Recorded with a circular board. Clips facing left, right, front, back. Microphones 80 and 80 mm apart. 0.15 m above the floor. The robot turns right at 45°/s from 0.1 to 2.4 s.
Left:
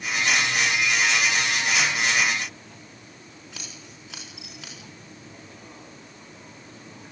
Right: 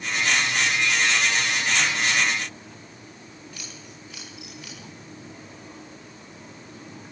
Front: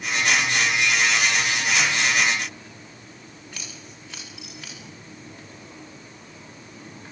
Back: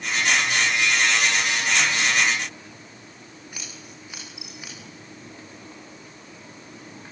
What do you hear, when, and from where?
3.5 s scissors: 105° left, 7.5 m